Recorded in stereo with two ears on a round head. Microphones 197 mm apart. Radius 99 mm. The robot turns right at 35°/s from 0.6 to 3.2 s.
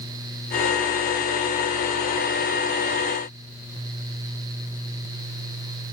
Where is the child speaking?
I don't hear a child speaking.